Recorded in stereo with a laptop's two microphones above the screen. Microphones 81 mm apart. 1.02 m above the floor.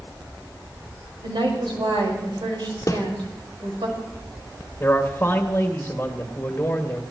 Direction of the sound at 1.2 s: 80° right.